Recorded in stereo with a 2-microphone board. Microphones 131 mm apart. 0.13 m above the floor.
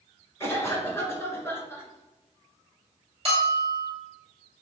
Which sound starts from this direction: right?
A bell, at 3.2 s.